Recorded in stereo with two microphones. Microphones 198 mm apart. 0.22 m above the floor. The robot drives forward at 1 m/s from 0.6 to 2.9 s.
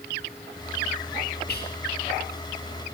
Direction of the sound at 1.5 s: 60° left (ahead or behind).